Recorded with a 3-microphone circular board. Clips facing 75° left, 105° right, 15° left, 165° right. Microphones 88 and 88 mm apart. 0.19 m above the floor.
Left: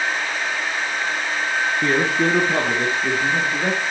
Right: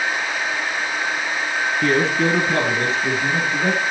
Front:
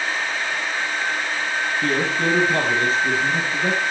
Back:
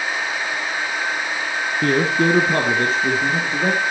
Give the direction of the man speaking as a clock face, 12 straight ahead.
7 o'clock.